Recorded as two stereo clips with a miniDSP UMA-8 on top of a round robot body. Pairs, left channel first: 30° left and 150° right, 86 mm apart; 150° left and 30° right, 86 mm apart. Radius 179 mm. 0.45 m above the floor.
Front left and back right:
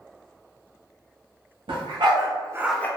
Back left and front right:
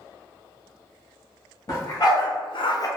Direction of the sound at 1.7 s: 165° right.